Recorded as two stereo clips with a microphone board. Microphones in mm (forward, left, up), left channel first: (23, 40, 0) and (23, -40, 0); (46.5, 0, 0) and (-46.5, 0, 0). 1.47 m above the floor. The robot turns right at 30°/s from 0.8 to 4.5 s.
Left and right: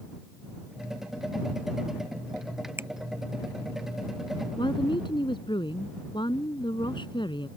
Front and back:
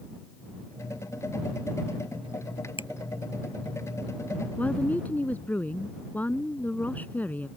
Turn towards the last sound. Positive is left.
turn(degrees=75)